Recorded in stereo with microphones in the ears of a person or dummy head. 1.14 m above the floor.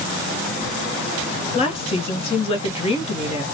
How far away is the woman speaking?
About 0.8 m.